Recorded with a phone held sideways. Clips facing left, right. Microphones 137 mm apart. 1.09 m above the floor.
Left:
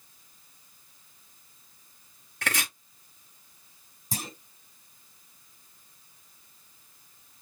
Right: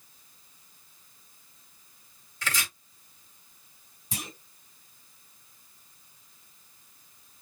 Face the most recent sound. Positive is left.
turn(degrees=40)  # may be behind; listen again after turning